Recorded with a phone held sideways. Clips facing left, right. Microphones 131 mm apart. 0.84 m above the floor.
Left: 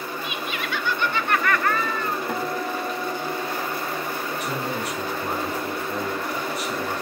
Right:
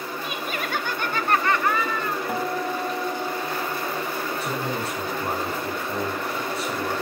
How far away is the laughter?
About 1.4 m.